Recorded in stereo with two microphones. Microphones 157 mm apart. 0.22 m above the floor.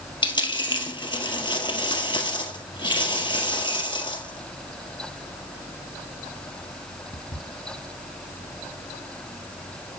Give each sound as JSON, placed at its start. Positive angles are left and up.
{"t": 0.2, "sound": "a dropped coin", "side_deg": 30, "distance_m": 1.7}